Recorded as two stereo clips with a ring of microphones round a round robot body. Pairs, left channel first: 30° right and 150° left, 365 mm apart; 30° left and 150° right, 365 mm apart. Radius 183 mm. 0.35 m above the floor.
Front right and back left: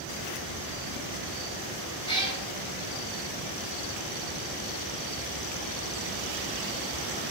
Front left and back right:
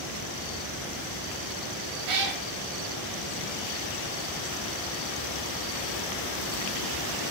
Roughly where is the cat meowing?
Right.